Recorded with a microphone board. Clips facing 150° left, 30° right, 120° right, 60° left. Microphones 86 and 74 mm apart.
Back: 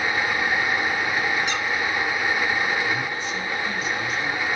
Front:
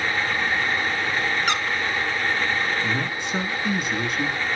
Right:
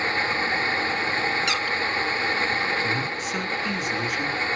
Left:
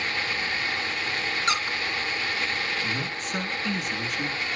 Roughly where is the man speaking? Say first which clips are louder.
Even, right 4 dB; ahead right.